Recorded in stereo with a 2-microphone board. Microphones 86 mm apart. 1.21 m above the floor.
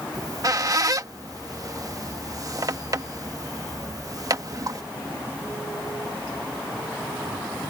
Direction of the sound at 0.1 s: 40° right (ahead or behind).